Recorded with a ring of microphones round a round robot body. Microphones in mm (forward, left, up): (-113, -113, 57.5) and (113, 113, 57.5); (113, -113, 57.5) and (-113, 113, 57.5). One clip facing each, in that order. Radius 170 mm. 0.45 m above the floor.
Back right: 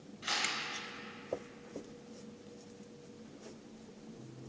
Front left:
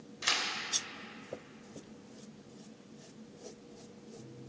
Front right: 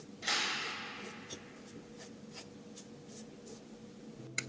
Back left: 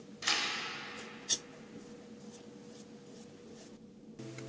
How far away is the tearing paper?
About 0.8 m.